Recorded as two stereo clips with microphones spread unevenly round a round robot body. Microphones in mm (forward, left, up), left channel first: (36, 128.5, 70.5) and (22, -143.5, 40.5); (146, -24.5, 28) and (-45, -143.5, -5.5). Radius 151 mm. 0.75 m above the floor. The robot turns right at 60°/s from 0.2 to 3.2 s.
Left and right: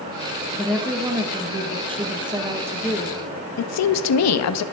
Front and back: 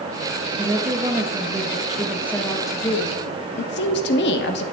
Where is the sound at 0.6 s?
165° right, 1.0 m; by 3.2 s 10° right, 1.0 m.